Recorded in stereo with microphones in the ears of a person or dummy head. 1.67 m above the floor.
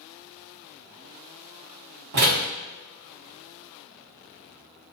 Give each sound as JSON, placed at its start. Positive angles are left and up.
{"t": 2.1, "sound": "a door slam", "side_deg": -45, "distance_m": 0.5}